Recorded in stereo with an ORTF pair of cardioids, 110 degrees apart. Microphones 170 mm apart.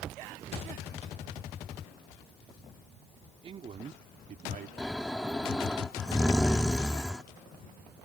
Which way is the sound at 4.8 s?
5° left.